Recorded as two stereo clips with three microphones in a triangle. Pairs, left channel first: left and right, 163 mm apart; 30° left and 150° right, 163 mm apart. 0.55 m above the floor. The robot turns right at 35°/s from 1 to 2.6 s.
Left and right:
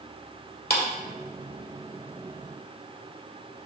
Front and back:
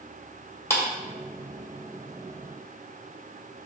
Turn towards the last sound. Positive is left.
turn(degrees=160)